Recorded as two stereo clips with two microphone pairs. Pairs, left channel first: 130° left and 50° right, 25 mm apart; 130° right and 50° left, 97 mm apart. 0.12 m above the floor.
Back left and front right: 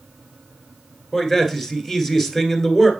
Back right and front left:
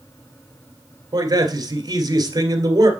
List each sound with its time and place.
1.1 s a man speaking: 70° left, 1.8 m